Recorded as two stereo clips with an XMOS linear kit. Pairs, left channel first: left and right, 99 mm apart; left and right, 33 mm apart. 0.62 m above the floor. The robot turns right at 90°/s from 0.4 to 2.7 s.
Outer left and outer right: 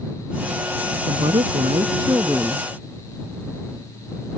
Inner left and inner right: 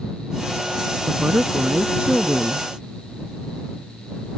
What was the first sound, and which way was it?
A woman speaking, 130° right.